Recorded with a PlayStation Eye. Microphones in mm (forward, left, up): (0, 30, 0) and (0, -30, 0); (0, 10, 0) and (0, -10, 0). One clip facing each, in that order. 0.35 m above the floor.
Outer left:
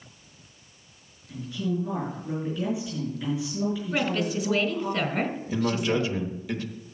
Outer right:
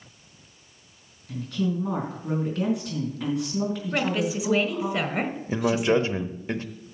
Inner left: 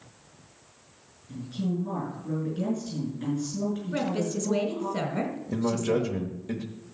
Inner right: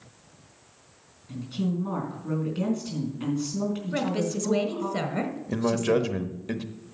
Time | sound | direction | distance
1.3 | a woman speaking | 70° right (ahead or behind) | 4 m
3.9 | a woman speaking | 15° right (ahead or behind) | 1.6 m
5.5 | a man speaking | 35° right (ahead or behind) | 1.0 m